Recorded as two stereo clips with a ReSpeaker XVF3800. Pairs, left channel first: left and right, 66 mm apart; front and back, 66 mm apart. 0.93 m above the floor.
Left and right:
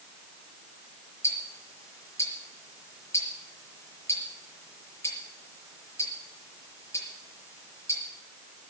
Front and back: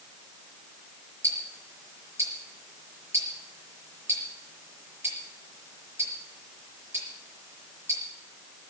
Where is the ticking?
135° left, 6 m.